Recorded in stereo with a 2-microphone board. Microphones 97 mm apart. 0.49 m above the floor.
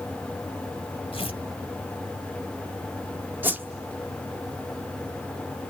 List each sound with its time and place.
1.1 s tearing paper: 75° left (ahead or behind), 2.5 m
3.4 s a whoosh: 20° right (ahead or behind), 1.2 m